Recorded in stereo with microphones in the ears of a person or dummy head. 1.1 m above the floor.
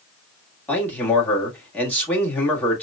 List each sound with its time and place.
0.7 s a man speaking: 5° left (ahead or behind), 1.8 m